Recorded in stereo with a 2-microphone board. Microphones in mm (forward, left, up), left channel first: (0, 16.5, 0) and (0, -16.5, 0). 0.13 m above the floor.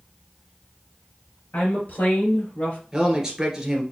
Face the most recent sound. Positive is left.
turn(degrees=-20)  # may be behind; listen again after turning